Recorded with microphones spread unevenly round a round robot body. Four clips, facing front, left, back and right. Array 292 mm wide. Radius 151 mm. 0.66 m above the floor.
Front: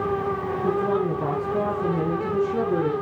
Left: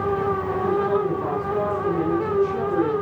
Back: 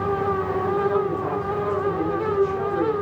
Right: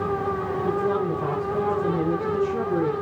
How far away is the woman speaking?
About 10 m.